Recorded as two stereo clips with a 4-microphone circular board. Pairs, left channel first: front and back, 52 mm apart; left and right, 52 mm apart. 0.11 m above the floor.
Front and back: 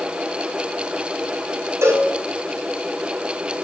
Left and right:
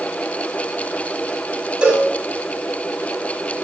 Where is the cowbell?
160° right, 6.5 m.